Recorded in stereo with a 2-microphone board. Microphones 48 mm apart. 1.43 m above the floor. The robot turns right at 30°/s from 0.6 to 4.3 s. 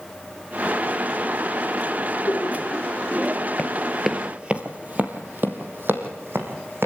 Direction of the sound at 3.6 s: 20° left (ahead or behind).